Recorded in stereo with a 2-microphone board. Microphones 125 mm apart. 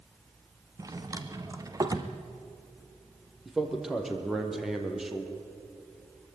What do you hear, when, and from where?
0.8 s a drawer: 25° right (ahead or behind), 1.5 m
3.5 s a man speaking: centre (ahead or behind), 3.5 m